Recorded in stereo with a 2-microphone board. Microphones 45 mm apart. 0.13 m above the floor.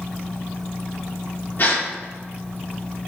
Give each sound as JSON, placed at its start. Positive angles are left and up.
{"t": 1.6, "sound": "a gasp", "side_deg": 50, "distance_m": 1.3}